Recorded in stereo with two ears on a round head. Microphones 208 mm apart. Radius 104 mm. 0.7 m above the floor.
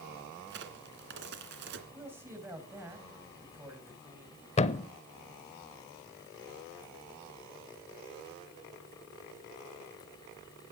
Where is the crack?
50° right (ahead or behind), 2 m.